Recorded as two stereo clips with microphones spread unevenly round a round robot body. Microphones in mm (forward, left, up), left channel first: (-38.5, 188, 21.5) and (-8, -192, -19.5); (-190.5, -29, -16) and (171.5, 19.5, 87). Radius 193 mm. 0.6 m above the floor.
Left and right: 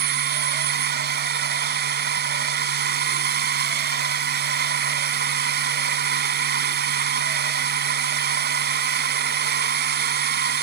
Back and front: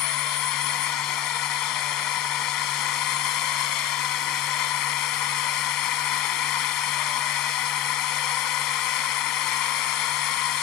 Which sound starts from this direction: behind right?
A drone, at 0.0 s.